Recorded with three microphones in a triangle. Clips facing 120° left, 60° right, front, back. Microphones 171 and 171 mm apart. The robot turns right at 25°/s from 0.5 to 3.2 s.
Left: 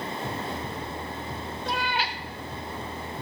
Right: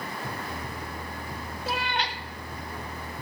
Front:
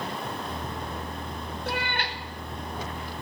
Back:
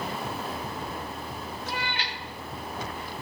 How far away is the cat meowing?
About 0.9 m.